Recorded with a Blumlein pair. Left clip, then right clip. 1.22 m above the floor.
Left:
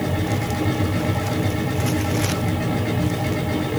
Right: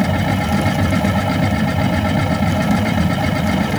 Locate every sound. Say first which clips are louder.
0.0 s a machine running: right 5 dB; 35° right, 1.7 m